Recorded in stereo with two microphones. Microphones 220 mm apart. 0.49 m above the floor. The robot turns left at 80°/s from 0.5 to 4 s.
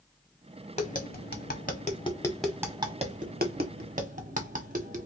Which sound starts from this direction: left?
Tapping, at 0.8 s.